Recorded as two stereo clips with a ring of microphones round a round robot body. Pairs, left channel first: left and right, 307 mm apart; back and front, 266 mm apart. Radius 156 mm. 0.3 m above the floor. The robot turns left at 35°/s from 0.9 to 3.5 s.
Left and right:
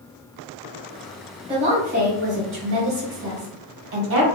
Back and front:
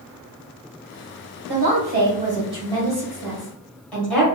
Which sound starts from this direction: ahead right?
A woman speaking, at 1.5 s.